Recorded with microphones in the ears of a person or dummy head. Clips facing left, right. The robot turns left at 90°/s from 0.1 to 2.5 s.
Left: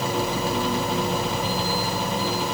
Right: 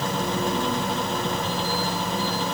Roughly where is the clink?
I don't hear a clink.